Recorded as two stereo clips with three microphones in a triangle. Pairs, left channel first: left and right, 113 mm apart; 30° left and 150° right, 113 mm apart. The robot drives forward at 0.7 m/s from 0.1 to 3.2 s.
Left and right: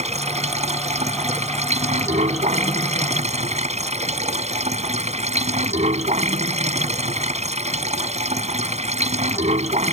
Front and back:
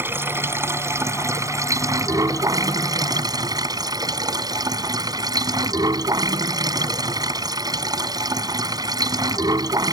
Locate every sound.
0.0 s running water: 80° right; by 9.9 s 95° right